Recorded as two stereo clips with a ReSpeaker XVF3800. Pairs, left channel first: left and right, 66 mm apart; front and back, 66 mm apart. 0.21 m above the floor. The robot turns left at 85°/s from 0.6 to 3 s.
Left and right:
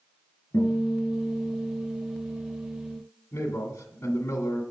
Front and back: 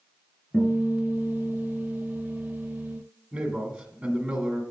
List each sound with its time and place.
0.5 s a guitar: 75° left, 2.5 m; by 3.0 s 130° right, 2.5 m
3.3 s a man speaking: 120° left, 1.7 m